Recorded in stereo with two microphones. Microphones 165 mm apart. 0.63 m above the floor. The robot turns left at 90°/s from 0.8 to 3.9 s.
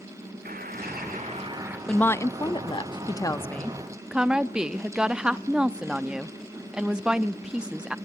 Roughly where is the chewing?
I don't hear chewing.